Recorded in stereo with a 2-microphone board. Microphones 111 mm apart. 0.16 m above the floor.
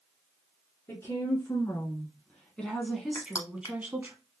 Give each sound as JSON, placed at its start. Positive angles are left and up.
{"t": 0.9, "sound": "a woman speaking", "side_deg": 20, "distance_m": 1.7}
{"t": 3.1, "sound": "crushing", "side_deg": 30, "distance_m": 1.0}